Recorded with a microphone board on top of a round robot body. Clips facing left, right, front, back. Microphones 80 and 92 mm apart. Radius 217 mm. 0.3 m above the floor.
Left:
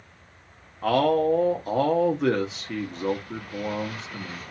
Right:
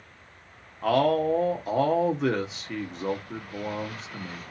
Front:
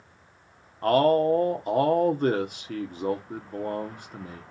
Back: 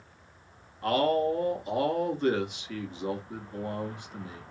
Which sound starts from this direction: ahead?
A man speaking, at 0.8 s.